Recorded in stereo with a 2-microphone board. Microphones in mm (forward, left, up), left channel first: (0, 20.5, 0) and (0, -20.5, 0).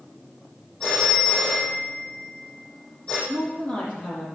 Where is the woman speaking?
35° left (ahead or behind), 7 m.